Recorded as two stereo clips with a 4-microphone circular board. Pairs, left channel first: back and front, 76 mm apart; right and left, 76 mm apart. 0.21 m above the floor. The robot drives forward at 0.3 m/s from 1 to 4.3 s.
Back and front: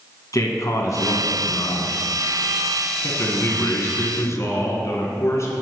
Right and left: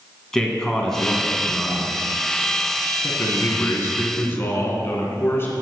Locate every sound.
0.3 s a man speaking: 170° right, 1.8 m
3.0 s a man speaking: 130° right, 1.6 m; by 5.5 s 140° right, 1.8 m